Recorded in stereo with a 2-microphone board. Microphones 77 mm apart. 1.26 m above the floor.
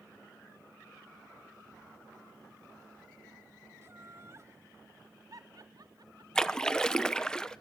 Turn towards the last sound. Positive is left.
turn(degrees=10)  # may be behind; listen again after turning